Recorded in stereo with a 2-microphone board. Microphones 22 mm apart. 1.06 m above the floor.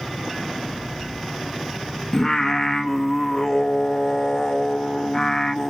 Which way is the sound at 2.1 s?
20° left (ahead or behind).